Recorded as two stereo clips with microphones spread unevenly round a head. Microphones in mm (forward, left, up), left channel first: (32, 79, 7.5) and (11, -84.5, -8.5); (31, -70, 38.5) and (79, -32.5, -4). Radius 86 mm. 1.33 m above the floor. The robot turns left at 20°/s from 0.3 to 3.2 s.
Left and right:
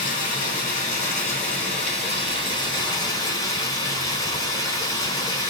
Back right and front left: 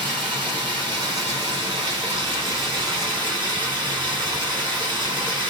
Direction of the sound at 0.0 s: 85° left.